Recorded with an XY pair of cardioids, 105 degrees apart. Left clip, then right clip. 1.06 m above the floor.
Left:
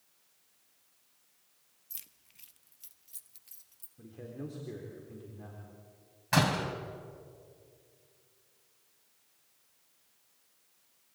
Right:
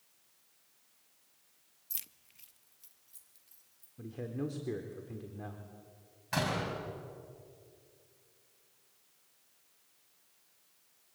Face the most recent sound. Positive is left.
turn(degrees=45)